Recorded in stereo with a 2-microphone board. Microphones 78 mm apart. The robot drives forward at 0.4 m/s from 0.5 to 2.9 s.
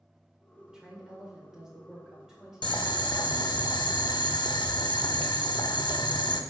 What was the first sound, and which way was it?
A woman speaking, 10° right (ahead or behind).